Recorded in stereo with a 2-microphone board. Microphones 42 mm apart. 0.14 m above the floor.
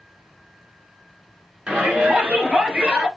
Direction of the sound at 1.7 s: 30° right (ahead or behind).